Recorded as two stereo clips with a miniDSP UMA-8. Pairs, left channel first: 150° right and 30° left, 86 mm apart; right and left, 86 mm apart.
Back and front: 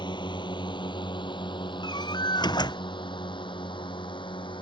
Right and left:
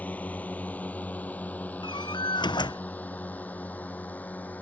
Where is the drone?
160° right.